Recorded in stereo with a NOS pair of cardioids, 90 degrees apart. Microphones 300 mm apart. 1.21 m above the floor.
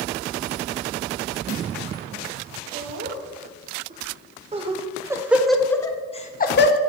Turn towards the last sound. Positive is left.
turn(degrees=40)